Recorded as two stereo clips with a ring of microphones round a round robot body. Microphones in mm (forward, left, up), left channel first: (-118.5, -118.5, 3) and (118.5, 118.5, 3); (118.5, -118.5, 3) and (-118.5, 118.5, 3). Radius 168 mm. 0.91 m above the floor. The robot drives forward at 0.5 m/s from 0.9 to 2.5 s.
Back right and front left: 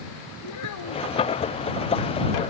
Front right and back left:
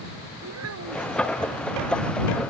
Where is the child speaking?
175° right.